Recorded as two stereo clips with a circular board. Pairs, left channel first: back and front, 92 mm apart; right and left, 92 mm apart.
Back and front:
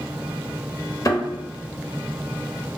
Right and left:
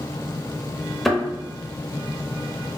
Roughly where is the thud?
Behind.